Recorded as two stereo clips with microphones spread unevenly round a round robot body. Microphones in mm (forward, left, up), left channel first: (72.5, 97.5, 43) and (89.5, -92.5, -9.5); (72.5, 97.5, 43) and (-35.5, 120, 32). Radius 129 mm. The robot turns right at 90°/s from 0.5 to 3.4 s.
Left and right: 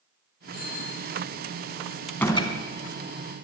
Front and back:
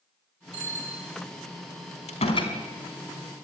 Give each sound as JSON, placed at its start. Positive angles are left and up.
{"t": 0.5, "sound": "a bicycle bell", "azimuth_deg": 175, "distance_m": 2.5}
{"t": 2.1, "sound": "a door slam", "azimuth_deg": 0, "distance_m": 4.0}